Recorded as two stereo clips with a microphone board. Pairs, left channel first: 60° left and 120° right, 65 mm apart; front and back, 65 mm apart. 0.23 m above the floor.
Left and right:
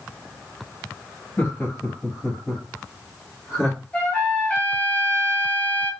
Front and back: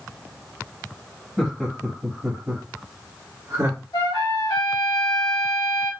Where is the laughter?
85° left, 0.9 m; by 3.8 s 155° left, 1.8 m.